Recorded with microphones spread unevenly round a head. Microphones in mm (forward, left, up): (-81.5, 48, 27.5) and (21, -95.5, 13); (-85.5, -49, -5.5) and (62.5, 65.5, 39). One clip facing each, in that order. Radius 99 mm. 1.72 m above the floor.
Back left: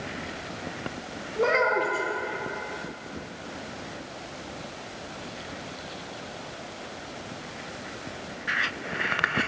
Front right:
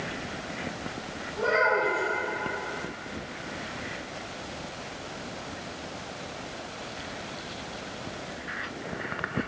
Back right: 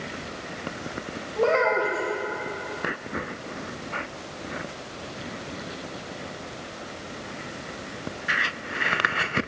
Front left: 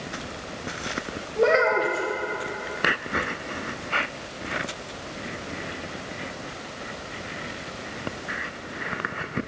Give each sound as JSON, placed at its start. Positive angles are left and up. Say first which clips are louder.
{"t": 1.4, "sound": "a child speaking", "louder": "back left 2 dB, front left 2 dB", "azimuth_deg": 100, "distance_m": 1.0}